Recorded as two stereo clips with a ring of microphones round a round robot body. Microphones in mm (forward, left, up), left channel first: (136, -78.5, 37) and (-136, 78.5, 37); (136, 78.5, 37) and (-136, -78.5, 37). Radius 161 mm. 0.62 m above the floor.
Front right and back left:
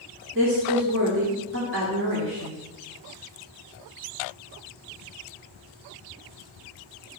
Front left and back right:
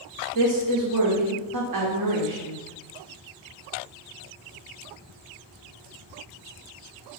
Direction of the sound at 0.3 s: 160° right.